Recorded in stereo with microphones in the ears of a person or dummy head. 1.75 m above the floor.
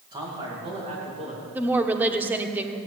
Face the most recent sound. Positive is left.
turn(degrees=-10)  # may be behind; listen again after turning